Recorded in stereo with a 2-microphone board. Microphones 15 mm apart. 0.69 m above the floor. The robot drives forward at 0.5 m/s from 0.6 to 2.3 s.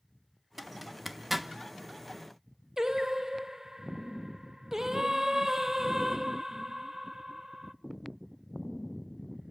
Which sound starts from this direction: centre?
A zipper, at 0.6 s.